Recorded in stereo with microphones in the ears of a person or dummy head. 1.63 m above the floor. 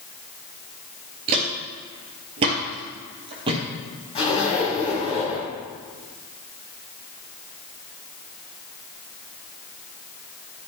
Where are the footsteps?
30° right (ahead or behind), 1.8 m.